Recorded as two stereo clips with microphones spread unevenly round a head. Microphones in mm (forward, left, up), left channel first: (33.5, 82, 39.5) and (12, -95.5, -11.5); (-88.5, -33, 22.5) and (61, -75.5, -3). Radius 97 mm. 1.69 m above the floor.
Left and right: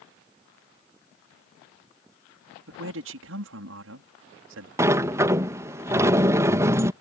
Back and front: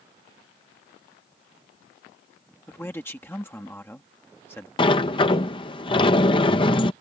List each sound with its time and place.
2.7 s a man speaking: 120° right
4.8 s a sliding door: 170° left